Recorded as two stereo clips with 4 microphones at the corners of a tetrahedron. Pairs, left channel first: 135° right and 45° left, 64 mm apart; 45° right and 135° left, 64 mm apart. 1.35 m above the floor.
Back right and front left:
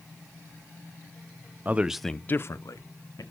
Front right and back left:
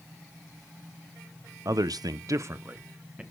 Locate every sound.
1.6 s a man speaking: 110° left, 0.6 m; by 3.2 s 150° right, 1.1 m